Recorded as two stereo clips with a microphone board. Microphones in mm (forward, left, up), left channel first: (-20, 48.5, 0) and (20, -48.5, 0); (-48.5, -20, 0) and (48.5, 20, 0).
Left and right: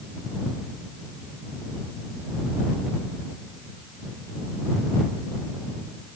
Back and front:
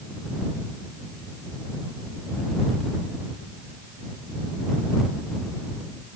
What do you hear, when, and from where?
Only background noise.